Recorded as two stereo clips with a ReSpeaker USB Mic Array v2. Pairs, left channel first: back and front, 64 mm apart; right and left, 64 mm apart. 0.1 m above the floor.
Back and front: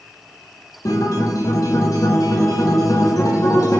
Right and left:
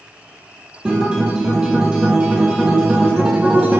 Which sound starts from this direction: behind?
A guitar, at 0.8 s.